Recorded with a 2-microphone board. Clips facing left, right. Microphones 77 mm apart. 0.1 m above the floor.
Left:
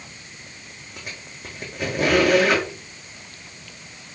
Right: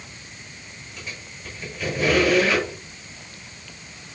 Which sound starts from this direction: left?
A squeak, at 1.0 s.